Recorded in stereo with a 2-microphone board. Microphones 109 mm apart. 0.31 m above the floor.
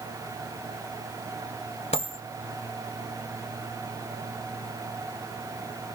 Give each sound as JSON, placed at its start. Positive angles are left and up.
{"t": 1.9, "sound": "a dropped coin", "side_deg": 80, "distance_m": 1.3}